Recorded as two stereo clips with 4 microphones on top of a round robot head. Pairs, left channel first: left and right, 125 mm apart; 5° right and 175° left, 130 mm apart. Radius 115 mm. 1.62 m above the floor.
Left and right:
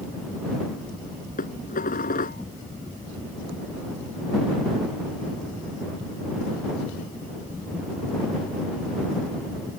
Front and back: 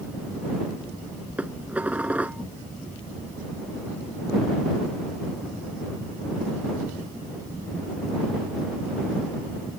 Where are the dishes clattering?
95° left.